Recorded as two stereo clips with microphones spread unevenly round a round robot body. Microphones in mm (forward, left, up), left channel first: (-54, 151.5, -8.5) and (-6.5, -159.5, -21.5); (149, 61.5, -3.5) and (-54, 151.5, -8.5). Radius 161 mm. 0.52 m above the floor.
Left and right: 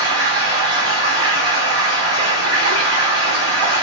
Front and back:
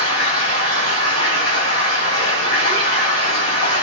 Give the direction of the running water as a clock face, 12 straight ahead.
1 o'clock.